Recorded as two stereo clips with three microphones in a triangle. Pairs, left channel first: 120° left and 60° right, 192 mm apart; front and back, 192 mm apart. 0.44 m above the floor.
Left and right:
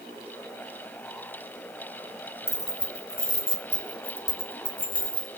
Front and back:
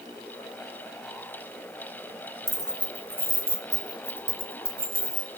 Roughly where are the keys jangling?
Left.